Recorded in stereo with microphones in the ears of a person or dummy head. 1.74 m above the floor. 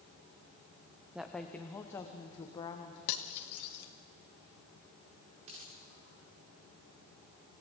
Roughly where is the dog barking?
No dog barking in this recording.